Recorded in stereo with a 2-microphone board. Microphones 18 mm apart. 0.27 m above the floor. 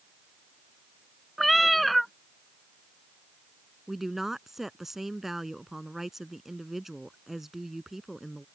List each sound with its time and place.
1.4 s a cat meowing: 5° left (ahead or behind)
3.9 s a woman speaking: 15° right (ahead or behind)